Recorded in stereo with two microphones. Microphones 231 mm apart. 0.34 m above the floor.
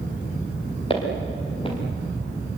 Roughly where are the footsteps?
Left.